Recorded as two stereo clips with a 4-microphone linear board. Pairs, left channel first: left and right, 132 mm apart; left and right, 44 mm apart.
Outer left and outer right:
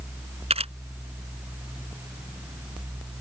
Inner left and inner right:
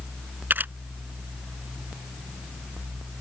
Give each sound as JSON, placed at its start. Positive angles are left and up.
{"t": 0.5, "sound": "a camera shutter", "side_deg": -45}